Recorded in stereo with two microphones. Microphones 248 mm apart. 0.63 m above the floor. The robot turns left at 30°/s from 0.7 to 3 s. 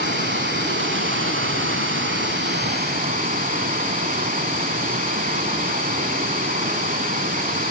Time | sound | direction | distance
0.0 | running water | 65° right | 0.7 m